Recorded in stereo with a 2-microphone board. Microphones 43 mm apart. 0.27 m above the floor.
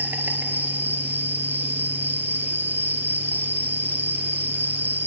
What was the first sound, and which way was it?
An insect, 50° right (ahead or behind).